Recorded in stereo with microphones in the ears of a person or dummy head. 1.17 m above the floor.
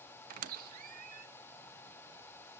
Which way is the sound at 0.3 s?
50° right (ahead or behind).